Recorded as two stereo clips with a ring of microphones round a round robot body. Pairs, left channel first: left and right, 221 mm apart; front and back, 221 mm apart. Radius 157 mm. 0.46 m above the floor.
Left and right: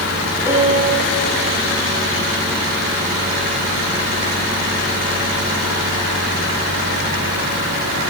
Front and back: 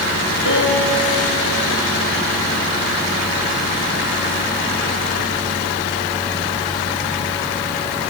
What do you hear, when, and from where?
0.5 s a piano: 175° right, 6 m